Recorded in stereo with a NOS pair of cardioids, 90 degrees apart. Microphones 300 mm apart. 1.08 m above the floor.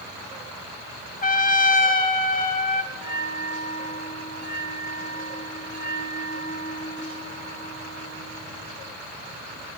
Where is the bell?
70° right, 4 m.